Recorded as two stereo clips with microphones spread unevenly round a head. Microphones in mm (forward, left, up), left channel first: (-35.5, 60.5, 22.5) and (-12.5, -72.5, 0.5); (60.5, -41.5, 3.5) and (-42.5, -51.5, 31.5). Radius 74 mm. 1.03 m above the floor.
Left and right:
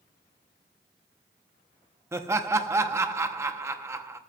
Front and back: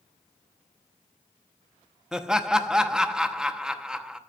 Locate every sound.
2.1 s laughter: 70° right, 0.9 m